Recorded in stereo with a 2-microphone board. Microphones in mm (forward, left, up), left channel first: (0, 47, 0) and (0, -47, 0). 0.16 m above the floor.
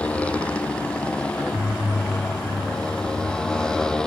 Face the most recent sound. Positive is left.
turn(degrees=10)  # may be behind; listen again after turning